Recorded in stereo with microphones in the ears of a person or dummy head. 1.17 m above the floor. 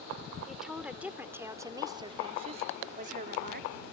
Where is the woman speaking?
5° left (ahead or behind); by 3.8 s 55° right (ahead or behind).